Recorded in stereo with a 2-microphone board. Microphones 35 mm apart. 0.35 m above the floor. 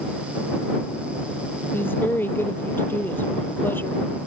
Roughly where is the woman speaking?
Left.